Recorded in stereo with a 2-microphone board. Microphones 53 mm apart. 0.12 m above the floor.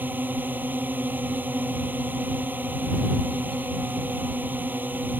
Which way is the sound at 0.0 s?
35° right (ahead or behind).